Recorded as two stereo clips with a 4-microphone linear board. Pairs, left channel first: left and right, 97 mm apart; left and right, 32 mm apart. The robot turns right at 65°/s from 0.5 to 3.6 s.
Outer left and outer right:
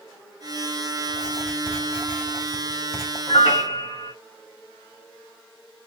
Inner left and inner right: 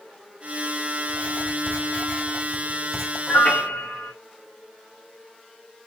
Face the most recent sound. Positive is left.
turn(degrees=50)  # may be behind; listen again after turning